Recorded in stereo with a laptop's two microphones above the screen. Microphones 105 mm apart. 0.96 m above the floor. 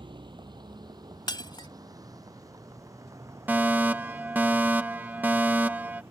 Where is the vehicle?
50° right (ahead or behind); by 6.1 s 25° right (ahead or behind).